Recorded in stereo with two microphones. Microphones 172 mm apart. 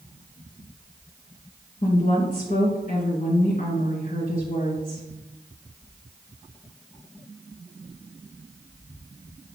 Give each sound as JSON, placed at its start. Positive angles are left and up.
{"t": 1.8, "sound": "a woman speaking", "side_deg": 50, "distance_m": 2.5}